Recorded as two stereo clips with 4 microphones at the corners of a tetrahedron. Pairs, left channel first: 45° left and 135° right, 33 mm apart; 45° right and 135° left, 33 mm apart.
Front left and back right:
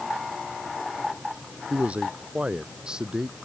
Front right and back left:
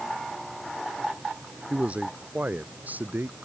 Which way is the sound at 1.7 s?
Straight behind.